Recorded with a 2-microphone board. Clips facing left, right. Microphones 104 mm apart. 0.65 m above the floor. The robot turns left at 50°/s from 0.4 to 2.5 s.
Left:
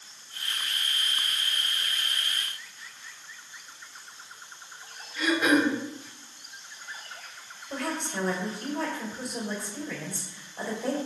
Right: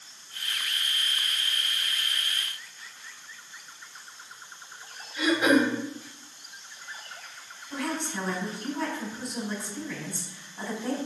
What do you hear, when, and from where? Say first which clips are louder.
5.2 s throat clearing: right 1 dB; 15° right (ahead or behind), 1.6 m
7.7 s a woman speaking: even; 55° left (ahead or behind), 3 m